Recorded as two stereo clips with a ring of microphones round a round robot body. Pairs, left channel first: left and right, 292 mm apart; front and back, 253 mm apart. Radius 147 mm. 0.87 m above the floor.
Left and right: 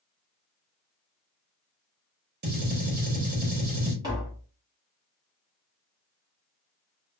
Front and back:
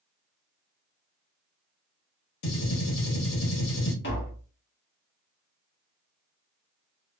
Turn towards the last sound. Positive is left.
turn(degrees=-20)